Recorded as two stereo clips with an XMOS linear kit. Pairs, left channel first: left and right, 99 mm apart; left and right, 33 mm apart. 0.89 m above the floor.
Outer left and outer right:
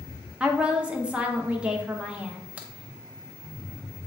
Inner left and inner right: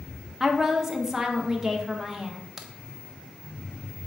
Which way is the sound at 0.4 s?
10° right (ahead or behind).